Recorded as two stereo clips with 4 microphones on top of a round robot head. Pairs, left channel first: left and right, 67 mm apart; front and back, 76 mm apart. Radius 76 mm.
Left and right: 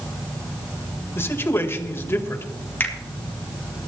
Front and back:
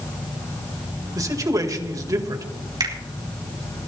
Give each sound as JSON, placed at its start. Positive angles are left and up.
{"t": 1.1, "sound": "a man speaking", "azimuth_deg": 140, "distance_m": 2.0}
{"t": 2.8, "sound": "a finger snap", "azimuth_deg": 150, "distance_m": 3.5}